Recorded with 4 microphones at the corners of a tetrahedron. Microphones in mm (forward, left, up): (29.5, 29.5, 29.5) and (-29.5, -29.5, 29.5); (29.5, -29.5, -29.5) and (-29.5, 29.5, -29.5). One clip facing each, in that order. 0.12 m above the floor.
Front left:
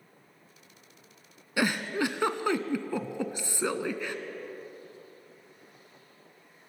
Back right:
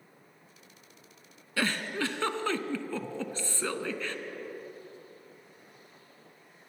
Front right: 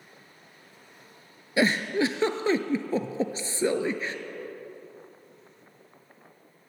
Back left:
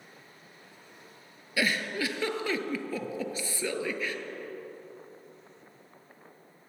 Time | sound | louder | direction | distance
1.6 | a giggle | front left 3 dB, front right 6 dB | 20° right | 0.6 m